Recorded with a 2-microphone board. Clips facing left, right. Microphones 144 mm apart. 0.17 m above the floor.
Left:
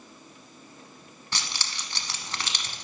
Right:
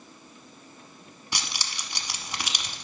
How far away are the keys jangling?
About 0.8 m.